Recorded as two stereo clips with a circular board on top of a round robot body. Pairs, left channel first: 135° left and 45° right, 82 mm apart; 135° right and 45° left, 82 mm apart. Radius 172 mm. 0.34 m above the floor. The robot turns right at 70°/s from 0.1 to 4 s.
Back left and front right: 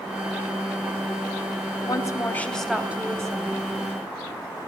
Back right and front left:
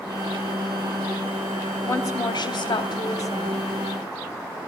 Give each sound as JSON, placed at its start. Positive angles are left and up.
{"t": 1.9, "sound": "a woman speaking", "azimuth_deg": 165, "distance_m": 3.0}